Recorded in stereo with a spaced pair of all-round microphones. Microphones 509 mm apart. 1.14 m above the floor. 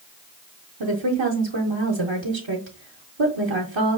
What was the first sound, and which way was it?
A woman speaking, 60° right (ahead or behind).